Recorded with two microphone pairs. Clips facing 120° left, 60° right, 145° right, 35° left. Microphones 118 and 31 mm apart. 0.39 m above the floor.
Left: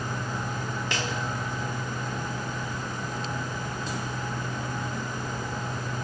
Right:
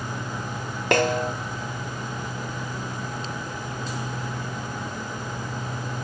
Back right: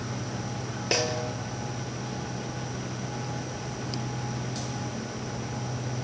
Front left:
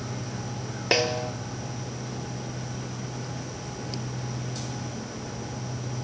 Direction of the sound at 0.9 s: 30° right.